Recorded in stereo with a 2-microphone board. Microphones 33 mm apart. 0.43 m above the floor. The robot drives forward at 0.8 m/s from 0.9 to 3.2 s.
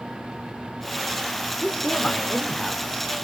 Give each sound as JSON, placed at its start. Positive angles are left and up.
{"t": 1.6, "sound": "a man speaking", "side_deg": 30, "distance_m": 1.4}